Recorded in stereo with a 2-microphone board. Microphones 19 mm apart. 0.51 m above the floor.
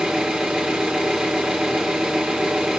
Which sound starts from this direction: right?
An engine running, at 0.0 s.